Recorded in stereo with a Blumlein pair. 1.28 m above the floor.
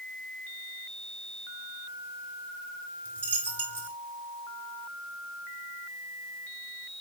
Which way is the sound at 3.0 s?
70° right.